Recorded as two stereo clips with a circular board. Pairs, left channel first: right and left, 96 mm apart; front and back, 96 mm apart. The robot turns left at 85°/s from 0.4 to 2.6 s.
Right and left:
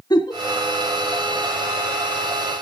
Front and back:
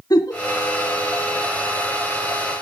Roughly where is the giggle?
Ahead right.